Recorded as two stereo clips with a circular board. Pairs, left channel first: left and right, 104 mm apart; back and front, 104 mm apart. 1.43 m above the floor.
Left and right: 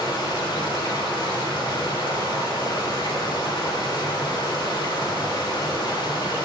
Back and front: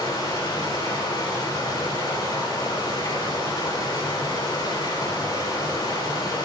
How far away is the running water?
About 3 m.